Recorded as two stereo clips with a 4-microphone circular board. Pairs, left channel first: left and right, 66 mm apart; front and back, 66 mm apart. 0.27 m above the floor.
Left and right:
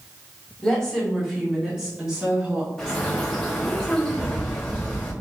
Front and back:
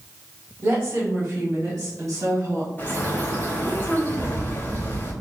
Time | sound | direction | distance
0.6 | a woman speaking | 170° left | 1.4 m
2.8 | a bird | 15° left | 1.3 m